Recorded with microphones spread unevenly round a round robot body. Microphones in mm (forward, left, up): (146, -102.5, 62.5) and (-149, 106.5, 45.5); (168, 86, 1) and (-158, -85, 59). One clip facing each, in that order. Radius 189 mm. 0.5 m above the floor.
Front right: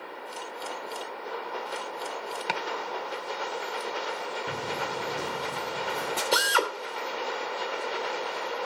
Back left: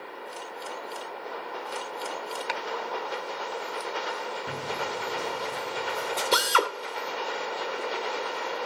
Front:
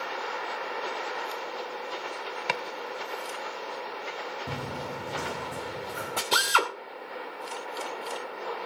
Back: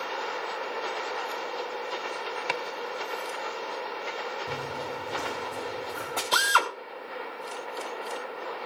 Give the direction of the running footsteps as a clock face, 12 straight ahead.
10 o'clock.